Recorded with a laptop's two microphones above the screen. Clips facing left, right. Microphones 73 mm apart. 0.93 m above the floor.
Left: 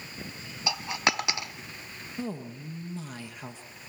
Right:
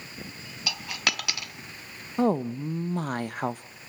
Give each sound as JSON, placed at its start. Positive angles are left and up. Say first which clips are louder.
{"t": 0.7, "sound": "a dropped coin", "louder": "left 3 dB", "side_deg": 25, "distance_m": 0.6}
{"t": 2.2, "sound": "a woman speaking", "louder": "right 12 dB", "side_deg": -50, "distance_m": 0.7}